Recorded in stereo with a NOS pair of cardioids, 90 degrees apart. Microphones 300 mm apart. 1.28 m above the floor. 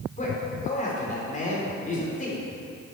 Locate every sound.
0.2 s a man speaking: 25° left, 4 m